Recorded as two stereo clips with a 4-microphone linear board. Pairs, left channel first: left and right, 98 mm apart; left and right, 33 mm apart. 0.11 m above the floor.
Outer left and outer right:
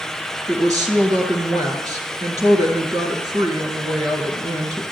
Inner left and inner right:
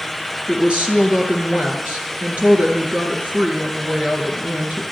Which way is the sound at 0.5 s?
40° right (ahead or behind).